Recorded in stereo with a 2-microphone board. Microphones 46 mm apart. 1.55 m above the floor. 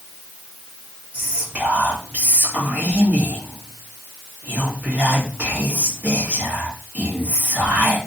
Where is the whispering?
35° right (ahead or behind), 1.1 m.